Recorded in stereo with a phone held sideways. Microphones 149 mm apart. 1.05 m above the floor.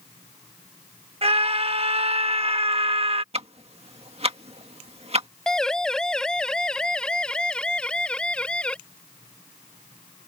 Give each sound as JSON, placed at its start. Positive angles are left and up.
{"t": 1.2, "sound": "a scream", "side_deg": -40}
{"t": 3.3, "sound": "ticking", "side_deg": -45}
{"t": 5.5, "sound": "a siren", "side_deg": 5}